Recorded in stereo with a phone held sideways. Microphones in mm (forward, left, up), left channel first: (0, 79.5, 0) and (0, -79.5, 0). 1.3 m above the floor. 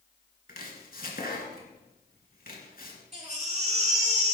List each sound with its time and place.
0.5 s chopping: 65° left (ahead or behind), 3 m
3.1 s a baby crying: 45° right (ahead or behind), 2.5 m